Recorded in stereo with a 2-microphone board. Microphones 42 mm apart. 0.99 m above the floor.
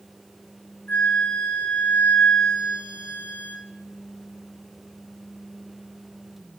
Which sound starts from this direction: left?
A flute, at 0.9 s.